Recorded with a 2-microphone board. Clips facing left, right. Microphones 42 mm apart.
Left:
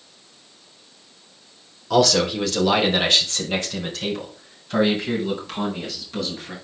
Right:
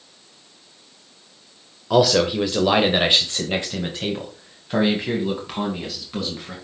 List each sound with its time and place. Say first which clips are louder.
1.9 s a man speaking: right 1 dB; 15° right (ahead or behind), 1.3 m; by 6.5 s 20° right (ahead or behind), 3.5 m